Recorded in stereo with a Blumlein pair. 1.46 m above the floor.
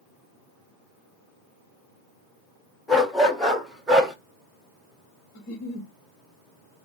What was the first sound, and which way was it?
A dog barking, straight ahead.